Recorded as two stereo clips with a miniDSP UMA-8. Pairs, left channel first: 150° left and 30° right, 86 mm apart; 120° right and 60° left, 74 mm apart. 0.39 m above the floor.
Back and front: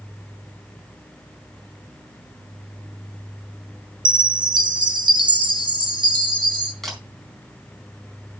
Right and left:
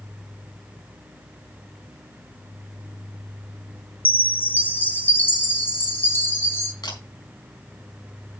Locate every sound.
4.0 s a chime: 60° right, 1.6 m
6.8 s a camera shutter: 125° right, 4 m